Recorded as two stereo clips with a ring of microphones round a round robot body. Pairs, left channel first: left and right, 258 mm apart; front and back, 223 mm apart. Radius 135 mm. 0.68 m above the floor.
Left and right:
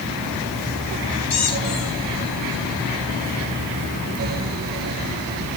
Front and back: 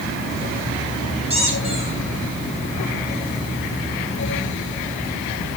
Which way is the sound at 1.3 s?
115° left.